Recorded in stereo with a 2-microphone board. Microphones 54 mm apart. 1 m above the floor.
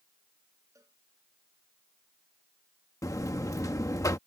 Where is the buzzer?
80° left.